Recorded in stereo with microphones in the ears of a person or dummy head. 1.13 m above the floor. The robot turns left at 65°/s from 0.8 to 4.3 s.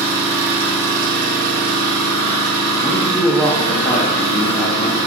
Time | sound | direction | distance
0.0 | an engine running | 5° right | 1.4 m
2.8 | a man speaking | 5° right (ahead or behind) | 0.7 m